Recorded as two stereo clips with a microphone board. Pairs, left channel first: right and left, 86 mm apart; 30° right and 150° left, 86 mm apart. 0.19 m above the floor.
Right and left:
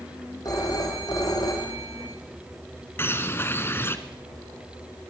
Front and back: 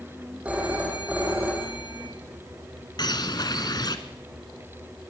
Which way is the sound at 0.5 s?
135° right.